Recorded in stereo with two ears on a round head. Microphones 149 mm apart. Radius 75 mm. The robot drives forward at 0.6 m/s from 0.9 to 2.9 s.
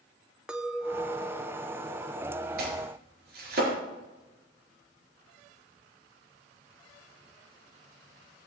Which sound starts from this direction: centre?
A clink, at 0.5 s.